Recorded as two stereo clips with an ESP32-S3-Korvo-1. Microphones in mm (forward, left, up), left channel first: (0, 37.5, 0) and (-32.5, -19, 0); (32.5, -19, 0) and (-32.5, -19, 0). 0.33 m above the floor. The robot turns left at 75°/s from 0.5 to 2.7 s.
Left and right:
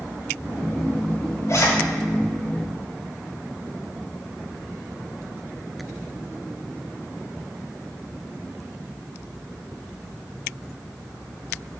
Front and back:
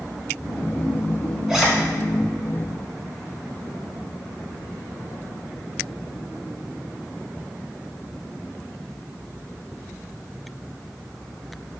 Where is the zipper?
100° left, 1.0 m; by 1.7 s 85° left, 1.0 m.